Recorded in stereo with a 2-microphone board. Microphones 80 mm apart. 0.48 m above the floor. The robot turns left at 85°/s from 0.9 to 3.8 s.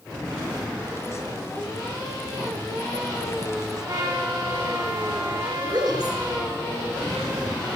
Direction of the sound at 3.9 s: 50° right (ahead or behind).